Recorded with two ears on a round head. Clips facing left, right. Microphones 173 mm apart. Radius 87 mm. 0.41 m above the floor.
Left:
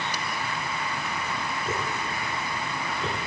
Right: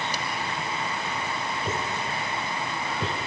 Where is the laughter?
I don't hear laughter.